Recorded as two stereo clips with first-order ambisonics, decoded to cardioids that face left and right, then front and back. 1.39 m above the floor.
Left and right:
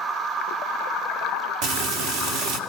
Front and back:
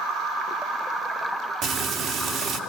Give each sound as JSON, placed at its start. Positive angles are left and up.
{"t": 1.6, "sound": "frying", "azimuth_deg": -115, "distance_m": 2.5}